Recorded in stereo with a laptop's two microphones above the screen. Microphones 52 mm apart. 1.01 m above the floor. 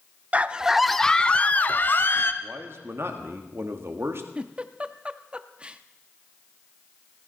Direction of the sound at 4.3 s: 20° right (ahead or behind).